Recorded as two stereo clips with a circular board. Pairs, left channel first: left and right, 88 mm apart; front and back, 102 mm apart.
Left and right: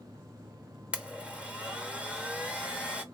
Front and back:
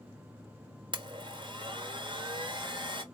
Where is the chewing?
No chewing in this recording.